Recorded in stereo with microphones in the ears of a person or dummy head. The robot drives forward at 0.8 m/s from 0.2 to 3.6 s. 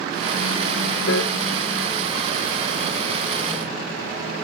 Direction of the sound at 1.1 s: 70° left (ahead or behind).